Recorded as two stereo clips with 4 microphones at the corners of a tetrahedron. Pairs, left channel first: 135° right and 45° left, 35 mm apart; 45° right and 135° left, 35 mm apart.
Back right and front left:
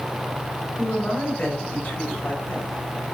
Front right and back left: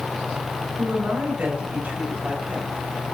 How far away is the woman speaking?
About 4.5 m.